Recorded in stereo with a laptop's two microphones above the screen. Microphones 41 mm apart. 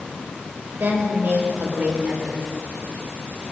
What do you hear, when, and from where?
0.8 s a woman speaking: 50° right (ahead or behind), 4.5 m; by 2.5 s 45° right (ahead or behind), 3.5 m